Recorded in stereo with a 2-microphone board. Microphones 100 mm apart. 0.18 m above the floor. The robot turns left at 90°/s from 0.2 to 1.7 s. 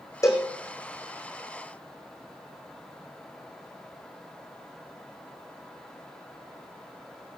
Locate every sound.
0.2 s a cowbell: 35° left (ahead or behind), 2.0 m; by 0.5 s 10° left (ahead or behind), 2.0 m